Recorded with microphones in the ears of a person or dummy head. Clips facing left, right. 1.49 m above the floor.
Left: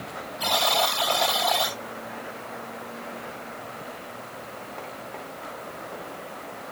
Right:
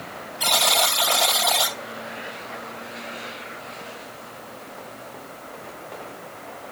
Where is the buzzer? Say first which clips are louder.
Even; 10° right (ahead or behind), 3 m.